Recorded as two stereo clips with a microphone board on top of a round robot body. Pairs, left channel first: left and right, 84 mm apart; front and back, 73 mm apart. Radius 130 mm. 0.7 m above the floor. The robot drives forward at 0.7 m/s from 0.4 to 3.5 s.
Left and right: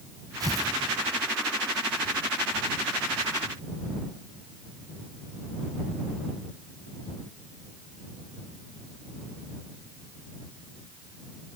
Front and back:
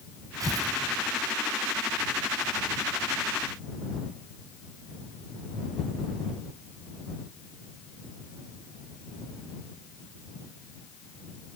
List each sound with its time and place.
0.4 s tearing paper: 140° right, 1.5 m; by 0.8 s 145° right, 1.7 m